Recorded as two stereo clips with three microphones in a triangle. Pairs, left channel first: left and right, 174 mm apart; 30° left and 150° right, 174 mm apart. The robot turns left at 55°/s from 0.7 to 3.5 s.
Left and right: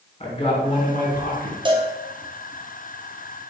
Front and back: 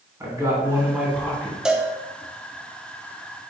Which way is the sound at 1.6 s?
70° right.